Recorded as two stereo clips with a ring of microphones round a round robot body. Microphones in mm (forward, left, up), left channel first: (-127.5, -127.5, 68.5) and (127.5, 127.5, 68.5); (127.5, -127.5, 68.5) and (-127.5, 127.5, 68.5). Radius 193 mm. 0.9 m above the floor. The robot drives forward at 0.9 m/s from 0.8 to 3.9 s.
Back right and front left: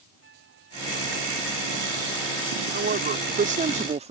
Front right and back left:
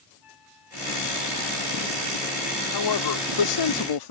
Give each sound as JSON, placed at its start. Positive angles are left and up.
{"t": 0.2, "sound": "a flute", "azimuth_deg": -15}
{"t": 2.7, "sound": "a woman speaking", "azimuth_deg": -20}